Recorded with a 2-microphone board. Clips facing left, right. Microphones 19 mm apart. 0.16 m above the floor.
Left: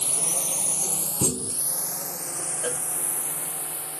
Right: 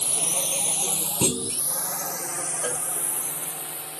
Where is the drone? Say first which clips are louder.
Right 1 dB; 30° right (ahead or behind); by 4.0 s 45° right (ahead or behind).